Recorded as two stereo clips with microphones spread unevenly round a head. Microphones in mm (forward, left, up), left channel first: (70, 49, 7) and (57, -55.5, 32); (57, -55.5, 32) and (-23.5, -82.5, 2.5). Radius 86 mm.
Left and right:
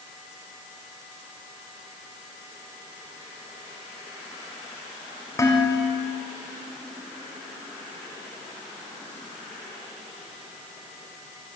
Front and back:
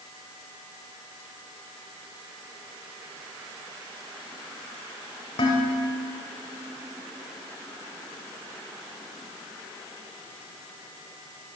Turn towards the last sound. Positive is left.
turn(degrees=20)